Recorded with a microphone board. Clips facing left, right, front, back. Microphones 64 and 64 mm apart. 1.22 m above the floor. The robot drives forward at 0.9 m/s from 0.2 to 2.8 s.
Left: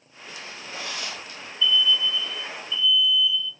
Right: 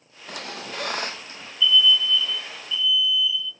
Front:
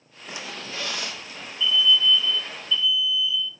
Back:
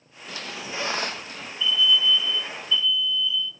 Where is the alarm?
125° left, 4.5 m; by 3.5 s 135° left, 5.5 m.